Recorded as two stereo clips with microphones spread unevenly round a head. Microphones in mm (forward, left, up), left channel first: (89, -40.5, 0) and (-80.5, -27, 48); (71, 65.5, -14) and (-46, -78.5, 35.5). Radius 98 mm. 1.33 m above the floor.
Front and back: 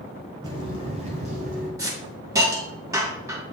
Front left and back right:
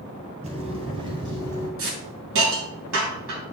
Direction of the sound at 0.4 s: 150° right.